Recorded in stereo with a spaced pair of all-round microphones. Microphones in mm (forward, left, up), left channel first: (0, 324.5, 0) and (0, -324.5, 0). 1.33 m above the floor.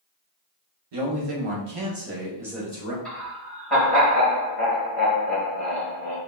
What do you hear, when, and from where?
0.9 s a man speaking: 65° right (ahead or behind), 1.1 m; by 3.0 s 15° left (ahead or behind), 0.9 m
3.0 s laughter: centre (ahead or behind), 1.7 m